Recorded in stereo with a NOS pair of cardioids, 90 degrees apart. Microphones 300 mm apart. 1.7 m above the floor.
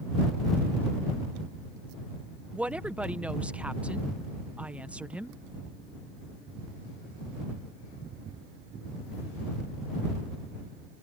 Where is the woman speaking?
5° right.